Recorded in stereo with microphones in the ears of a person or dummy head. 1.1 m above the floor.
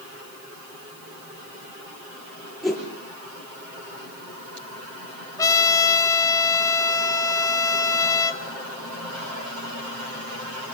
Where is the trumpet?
25° left (ahead or behind), 1.7 m.